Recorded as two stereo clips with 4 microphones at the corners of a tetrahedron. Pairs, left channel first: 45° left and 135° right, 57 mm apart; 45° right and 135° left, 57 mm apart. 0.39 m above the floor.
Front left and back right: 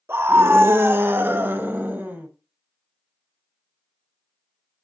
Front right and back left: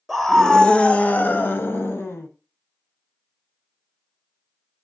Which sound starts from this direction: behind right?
A scream, at 0.1 s.